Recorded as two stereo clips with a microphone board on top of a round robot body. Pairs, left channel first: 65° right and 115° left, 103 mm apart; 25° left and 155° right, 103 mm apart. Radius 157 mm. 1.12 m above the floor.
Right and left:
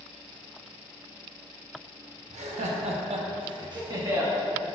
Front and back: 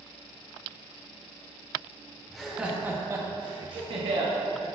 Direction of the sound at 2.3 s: 110° left.